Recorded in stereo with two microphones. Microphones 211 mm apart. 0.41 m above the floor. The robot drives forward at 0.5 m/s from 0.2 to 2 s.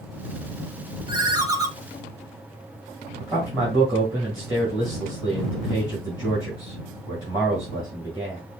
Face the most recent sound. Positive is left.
turn(degrees=-20)  # may be behind; listen again after turning